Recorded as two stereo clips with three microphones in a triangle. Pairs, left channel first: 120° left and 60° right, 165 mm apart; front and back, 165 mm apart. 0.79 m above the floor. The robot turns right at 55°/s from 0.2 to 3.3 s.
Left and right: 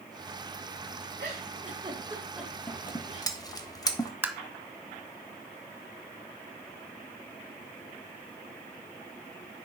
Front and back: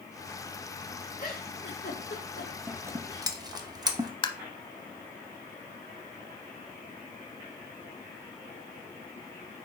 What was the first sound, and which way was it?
A giggle, 40° right.